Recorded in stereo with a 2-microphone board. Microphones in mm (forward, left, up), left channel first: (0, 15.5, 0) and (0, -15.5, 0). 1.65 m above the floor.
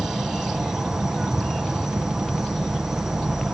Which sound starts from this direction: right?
An insect, at 0.0 s.